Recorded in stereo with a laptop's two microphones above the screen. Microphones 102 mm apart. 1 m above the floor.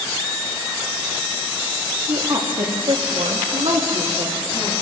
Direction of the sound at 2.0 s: 40° right (ahead or behind).